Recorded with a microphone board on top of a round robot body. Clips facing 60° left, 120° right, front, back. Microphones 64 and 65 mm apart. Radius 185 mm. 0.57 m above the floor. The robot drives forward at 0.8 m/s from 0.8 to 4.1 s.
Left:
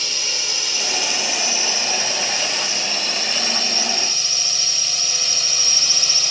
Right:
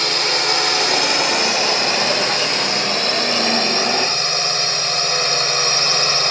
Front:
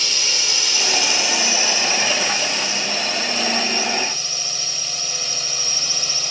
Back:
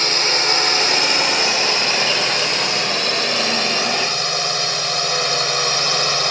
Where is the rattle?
No rattle in this recording.